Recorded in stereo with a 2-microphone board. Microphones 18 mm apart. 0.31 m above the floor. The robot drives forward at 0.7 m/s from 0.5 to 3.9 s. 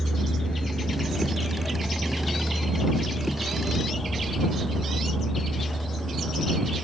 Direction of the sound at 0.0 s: 60° left (ahead or behind).